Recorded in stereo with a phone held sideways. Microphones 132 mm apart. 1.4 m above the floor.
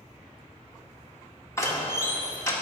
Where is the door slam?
20° left (ahead or behind), 1.8 m.